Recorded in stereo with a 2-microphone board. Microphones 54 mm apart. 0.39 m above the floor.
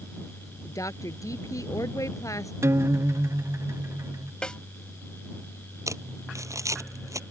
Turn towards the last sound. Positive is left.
turn(degrees=-75)  # may be behind; listen again after turning